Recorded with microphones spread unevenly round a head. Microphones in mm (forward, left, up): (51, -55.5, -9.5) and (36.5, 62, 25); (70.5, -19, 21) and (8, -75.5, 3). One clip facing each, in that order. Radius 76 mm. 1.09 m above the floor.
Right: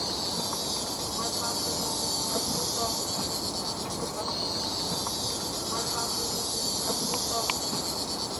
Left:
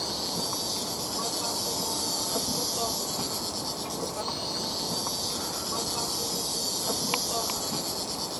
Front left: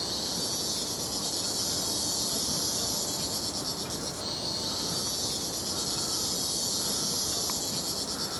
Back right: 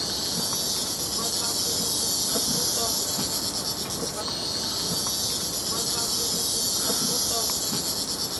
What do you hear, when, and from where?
0.0 s an insect: 175° right